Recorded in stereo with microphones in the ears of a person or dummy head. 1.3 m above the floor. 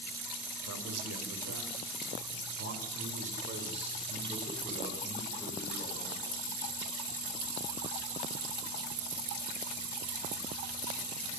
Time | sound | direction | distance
0.7 | a man speaking | 80° right | 6 m